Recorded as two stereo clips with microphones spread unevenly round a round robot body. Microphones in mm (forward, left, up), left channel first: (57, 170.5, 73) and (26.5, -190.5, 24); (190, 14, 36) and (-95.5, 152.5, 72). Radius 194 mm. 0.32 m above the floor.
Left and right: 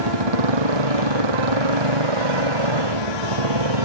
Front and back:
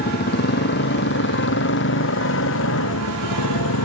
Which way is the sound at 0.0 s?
90° right.